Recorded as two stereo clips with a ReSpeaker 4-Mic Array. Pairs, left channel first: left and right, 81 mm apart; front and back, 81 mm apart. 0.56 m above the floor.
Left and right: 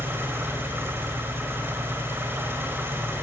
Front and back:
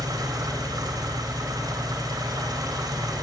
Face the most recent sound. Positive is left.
turn(degrees=-150)